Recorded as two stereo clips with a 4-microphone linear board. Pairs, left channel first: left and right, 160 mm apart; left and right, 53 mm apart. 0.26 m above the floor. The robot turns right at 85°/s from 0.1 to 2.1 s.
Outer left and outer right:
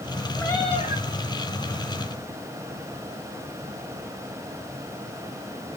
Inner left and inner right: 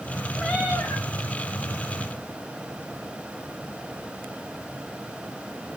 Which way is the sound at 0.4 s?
10° left.